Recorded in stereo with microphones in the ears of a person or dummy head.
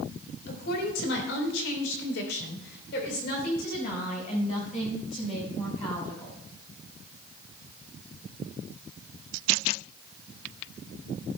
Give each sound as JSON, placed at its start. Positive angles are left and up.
{"t": 0.5, "sound": "a woman speaking", "side_deg": 65, "distance_m": 4.0}